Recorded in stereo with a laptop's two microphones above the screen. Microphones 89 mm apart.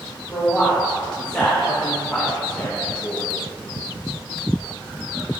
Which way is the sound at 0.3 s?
20° left (ahead or behind).